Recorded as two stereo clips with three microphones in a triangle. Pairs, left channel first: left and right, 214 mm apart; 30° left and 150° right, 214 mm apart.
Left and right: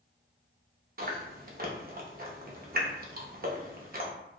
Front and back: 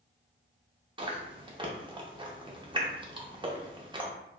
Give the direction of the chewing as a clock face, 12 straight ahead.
3 o'clock.